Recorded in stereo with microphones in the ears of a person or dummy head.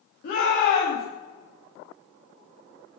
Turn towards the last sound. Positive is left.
turn(degrees=60)  # may be behind; listen again after turning